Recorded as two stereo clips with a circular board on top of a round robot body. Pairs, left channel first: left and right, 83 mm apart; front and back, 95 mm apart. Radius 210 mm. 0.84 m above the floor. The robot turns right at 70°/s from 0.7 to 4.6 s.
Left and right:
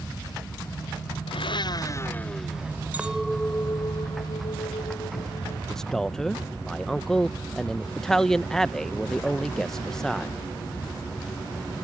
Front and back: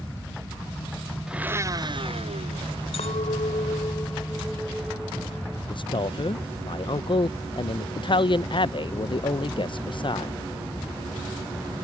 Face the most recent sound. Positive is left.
turn(degrees=5)